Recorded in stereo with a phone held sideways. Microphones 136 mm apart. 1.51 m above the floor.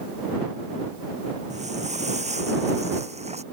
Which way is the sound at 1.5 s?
60° right (ahead or behind).